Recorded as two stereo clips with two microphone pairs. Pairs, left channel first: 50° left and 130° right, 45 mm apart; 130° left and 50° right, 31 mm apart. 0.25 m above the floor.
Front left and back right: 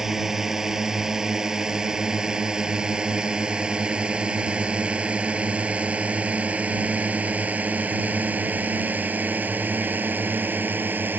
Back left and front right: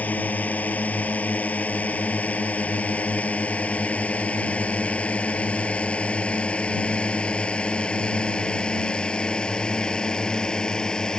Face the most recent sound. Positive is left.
turn(degrees=-170)